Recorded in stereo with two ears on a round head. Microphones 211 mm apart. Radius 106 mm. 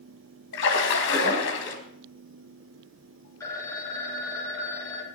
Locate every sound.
0.5 s a splash: 50° left (ahead or behind), 2.5 m
3.4 s a phone ringing: 15° left (ahead or behind), 2.5 m